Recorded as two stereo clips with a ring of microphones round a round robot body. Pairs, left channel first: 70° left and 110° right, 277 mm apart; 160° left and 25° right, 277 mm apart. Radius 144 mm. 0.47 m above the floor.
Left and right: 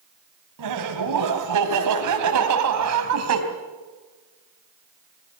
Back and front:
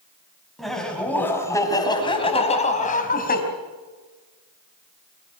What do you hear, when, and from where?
0.6 s laughter: 115° right, 4.5 m; by 3.4 s 145° right, 4 m